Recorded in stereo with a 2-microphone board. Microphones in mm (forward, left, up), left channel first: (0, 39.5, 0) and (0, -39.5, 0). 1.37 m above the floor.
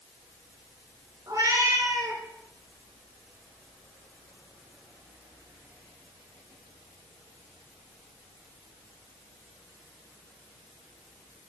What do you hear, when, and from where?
1.3 s a cat meowing: 50° right (ahead or behind), 1.9 m